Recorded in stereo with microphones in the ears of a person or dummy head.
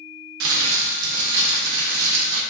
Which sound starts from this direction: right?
Crumpling, at 0.4 s.